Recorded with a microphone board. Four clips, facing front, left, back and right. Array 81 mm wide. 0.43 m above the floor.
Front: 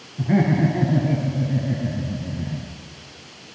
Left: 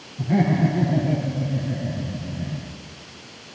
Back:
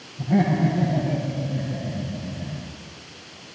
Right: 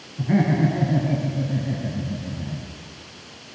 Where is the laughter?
30° right, 6.5 m; by 2.7 s 20° right, 5 m.